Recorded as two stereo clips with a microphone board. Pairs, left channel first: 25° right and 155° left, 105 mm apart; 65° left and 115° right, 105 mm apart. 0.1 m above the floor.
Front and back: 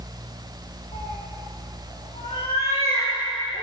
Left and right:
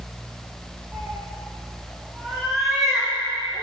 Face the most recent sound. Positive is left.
turn(degrees=-30)